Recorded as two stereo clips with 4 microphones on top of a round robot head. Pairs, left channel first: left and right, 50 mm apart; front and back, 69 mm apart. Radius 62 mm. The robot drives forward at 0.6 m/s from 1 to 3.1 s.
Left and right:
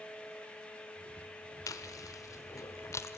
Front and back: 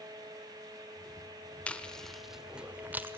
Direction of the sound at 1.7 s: 70° left.